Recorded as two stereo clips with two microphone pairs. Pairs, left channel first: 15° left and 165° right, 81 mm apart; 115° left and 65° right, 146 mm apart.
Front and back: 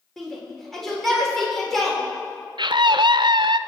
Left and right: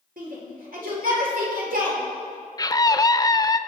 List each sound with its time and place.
0.2 s a shout: 75° right, 4 m
2.6 s a scream: 175° left, 0.7 m